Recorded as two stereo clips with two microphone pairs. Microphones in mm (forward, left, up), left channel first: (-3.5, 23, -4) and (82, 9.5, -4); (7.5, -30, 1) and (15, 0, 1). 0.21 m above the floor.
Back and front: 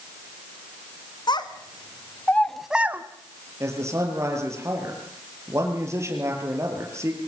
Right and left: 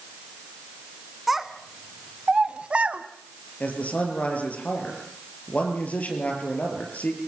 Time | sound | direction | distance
1.3 | a child speaking | 160° left | 1.6 m
3.6 | a man speaking | 65° right | 5.5 m